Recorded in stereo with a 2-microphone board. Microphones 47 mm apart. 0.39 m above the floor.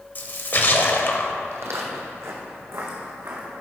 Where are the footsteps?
75° right (ahead or behind), 1.1 m; by 3.5 s 55° right (ahead or behind), 2.5 m.